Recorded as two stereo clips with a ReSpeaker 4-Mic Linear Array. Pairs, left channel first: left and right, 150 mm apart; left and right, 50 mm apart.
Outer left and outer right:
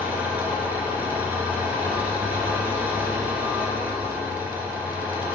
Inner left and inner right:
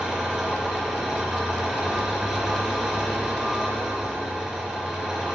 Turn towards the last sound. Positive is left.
turn(degrees=-10)  # may be behind; listen again after turning